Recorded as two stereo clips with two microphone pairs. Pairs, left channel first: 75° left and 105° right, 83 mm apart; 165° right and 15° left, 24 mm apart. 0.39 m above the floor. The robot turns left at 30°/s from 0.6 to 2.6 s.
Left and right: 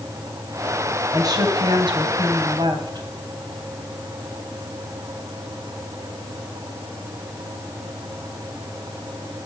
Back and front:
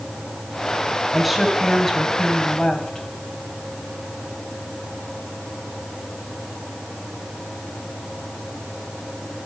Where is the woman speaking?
70° right, 3 m; by 3.1 s 115° right, 3 m.